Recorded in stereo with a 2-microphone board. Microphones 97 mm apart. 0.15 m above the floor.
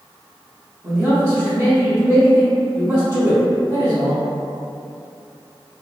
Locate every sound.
0.8 s a man speaking: 25° right (ahead or behind), 1.9 m